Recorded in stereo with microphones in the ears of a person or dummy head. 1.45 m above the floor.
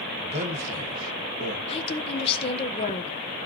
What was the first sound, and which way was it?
A man speaking, 35° right (ahead or behind).